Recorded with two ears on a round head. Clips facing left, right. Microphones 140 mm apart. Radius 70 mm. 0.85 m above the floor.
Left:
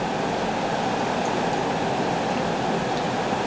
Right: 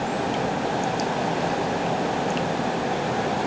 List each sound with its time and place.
Only background noise.